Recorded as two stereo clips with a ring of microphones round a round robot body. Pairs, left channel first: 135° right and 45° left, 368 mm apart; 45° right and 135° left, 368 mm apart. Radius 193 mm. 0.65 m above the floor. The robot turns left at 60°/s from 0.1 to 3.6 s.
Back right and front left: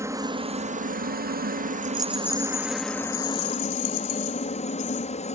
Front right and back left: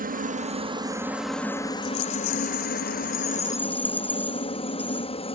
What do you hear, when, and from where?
0.0 s a helicopter: 115° left; by 5.4 s 95° right
1.8 s a rattle: 25° right; by 5.1 s 130° right